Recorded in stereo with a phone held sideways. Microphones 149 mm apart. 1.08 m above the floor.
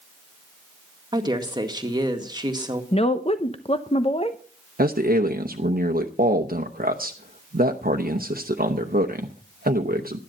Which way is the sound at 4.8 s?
80° right.